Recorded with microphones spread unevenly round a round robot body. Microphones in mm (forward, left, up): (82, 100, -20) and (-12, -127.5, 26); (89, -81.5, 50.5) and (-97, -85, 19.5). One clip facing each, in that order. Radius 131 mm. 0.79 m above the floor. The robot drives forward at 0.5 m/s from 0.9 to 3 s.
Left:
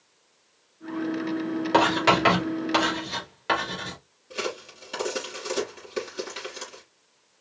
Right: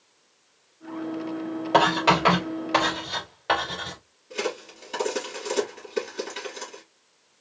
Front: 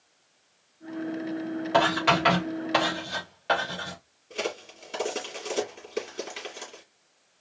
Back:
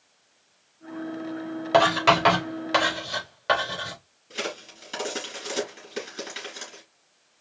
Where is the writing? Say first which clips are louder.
Even, back 4 dB; 130° left, 3.5 m; by 4.0 s 135° left, 4 m.